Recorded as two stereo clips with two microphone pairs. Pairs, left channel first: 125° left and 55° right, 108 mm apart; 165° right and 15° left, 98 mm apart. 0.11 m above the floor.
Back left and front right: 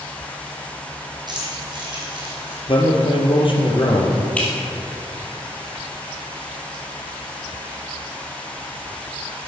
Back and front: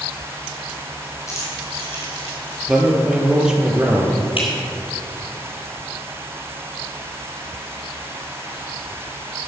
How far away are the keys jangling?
About 4 m.